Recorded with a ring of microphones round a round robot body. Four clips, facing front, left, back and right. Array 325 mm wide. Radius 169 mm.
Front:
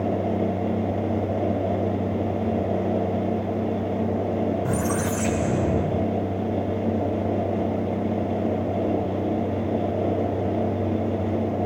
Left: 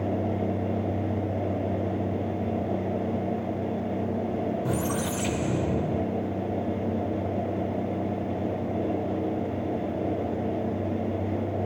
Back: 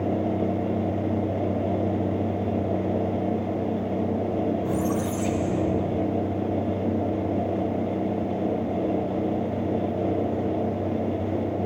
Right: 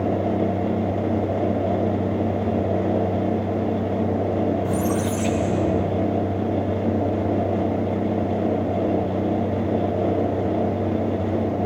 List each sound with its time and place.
4.7 s a squeak: 25° left, 0.5 m